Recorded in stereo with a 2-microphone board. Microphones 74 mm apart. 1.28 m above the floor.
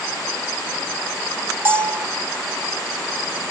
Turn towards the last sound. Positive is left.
turn(degrees=-35)  # may be behind; listen again after turning